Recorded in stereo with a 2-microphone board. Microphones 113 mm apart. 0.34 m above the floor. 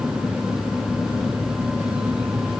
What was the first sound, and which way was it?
Only background noise.